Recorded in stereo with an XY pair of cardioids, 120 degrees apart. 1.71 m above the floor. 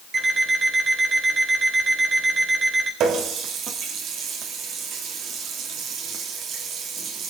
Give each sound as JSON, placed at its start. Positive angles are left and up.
{"t": 0.1, "sound": "an alarm clock", "azimuth_deg": -40, "distance_m": 4.0}
{"t": 3.0, "sound": "a running tap", "azimuth_deg": -65, "distance_m": 3.0}